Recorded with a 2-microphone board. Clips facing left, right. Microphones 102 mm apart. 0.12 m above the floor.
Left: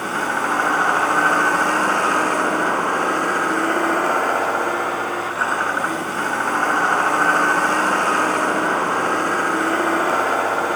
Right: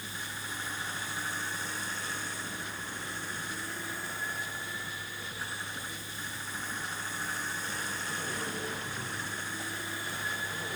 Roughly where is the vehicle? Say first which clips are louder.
Left 21 dB; left.